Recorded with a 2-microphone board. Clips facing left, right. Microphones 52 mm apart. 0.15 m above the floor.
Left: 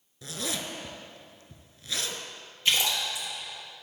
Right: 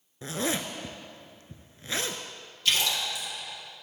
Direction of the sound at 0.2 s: 30° right (ahead or behind).